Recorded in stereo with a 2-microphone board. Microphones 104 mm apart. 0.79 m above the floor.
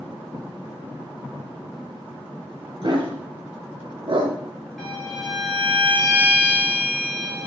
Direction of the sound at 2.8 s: 50° right (ahead or behind).